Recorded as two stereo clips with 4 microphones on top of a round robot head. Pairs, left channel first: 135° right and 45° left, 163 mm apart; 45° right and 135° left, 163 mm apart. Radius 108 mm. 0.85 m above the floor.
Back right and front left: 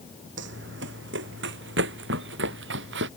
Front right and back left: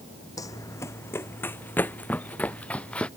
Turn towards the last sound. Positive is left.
turn(degrees=40)